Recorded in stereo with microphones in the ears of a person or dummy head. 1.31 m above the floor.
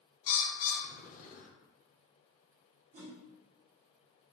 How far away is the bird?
About 0.7 m.